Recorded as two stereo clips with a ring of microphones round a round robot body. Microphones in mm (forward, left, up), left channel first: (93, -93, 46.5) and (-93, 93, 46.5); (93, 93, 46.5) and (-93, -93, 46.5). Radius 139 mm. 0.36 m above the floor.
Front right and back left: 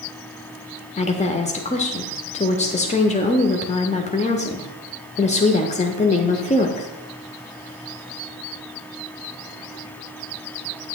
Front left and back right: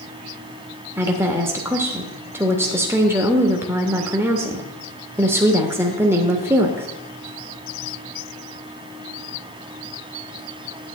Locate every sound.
1.0 s a woman speaking: 65° right, 0.9 m